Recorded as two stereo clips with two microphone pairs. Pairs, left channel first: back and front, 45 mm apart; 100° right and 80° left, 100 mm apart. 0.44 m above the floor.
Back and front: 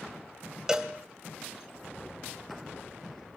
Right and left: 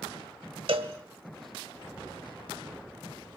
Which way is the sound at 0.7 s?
75° left.